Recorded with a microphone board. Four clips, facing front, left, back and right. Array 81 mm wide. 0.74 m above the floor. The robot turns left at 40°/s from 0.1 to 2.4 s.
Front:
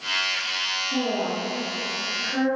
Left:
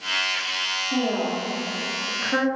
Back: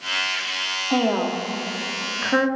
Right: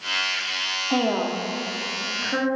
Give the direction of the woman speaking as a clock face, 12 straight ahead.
5 o'clock.